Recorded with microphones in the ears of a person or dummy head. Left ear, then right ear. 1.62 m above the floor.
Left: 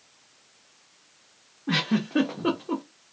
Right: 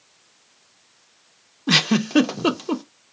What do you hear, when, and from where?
1.7 s a giggle: 80° right, 0.5 m